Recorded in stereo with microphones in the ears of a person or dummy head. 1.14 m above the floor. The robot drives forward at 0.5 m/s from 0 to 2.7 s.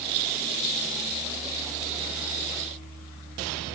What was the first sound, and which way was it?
Only background noise.